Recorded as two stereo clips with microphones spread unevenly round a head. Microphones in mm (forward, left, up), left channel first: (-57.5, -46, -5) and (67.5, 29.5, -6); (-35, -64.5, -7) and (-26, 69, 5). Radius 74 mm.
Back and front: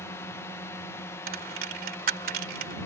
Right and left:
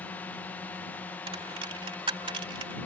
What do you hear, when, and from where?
0.0 s a drone: 130° right
1.3 s a dropped coin: 35° left